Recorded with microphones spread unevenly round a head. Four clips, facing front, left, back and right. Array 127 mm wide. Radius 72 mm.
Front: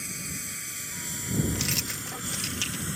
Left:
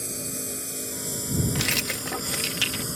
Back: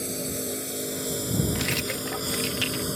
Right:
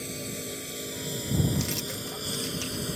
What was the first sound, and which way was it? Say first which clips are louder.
A lawn mower: left 1 dB, back 10 dB; 175° right.